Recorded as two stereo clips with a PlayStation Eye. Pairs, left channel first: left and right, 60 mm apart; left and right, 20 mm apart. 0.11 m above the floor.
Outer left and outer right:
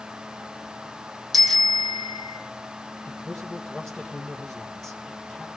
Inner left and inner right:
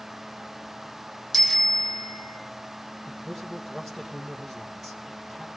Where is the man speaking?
5° left (ahead or behind), 3.5 m.